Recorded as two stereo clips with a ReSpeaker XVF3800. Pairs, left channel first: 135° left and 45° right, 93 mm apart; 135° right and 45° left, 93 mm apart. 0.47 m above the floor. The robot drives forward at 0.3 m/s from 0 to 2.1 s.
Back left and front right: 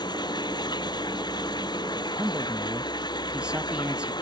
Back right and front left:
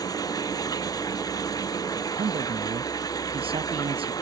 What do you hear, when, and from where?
0.0 s running water: 175° left
2.2 s a man speaking: 35° left